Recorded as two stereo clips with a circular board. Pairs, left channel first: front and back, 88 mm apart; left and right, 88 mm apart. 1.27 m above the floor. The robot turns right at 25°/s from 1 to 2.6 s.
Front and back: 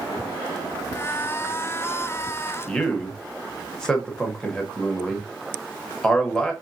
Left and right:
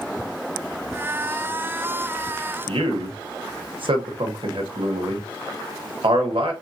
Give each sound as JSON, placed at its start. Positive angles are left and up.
{"t": 2.7, "sound": "a man speaking", "azimuth_deg": -80, "distance_m": 1.0}